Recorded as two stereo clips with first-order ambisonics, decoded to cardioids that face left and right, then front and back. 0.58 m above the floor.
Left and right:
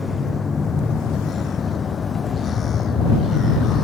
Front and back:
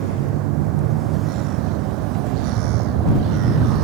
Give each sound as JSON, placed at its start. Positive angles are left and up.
{"t": 0.0, "sound": "a vehicle", "azimuth_deg": 165}